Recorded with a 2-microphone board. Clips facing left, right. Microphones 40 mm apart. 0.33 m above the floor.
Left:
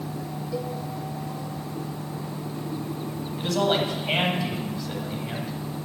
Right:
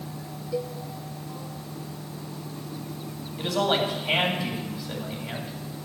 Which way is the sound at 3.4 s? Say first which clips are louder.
Left 1 dB; 5° right (ahead or behind).